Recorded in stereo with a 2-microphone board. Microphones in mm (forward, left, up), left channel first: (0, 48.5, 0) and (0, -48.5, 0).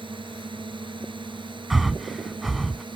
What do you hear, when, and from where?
0.0 s a drone: 60° right (ahead or behind); by 3.0 s 55° right (ahead or behind)
1.7 s breathing: centre (ahead or behind)